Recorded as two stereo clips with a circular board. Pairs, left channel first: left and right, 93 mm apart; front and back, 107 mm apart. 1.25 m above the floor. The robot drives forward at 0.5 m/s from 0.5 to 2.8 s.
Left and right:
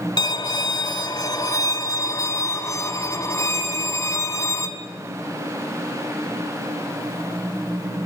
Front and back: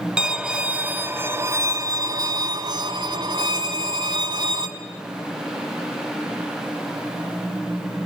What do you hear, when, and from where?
0.2 s a violin: 100° left, 1.5 m; by 4.7 s 140° left, 2.0 m